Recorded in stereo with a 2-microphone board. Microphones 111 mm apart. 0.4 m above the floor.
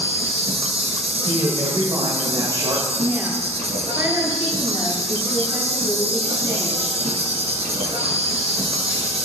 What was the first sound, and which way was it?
An insect, 75° right (ahead or behind).